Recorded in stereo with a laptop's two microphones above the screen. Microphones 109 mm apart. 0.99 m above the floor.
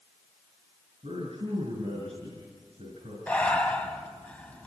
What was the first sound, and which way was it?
A man speaking, 60° right (ahead or behind).